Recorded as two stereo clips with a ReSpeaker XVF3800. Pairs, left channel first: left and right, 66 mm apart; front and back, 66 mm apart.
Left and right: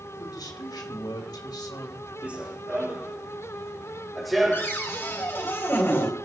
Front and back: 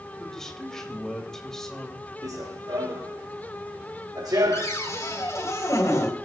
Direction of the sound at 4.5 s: 35° left.